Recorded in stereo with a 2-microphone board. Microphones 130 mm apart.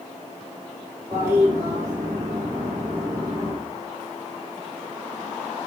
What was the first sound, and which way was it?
A toilet flushing, 25° right (ahead or behind).